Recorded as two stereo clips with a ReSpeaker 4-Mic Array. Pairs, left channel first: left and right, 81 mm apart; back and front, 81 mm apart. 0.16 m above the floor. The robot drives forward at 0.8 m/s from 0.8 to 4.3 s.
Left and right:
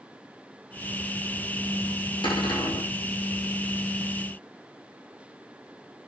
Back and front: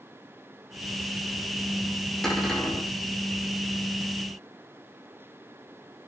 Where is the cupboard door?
95° left, 7 m; by 2.9 s 100° left, 7 m.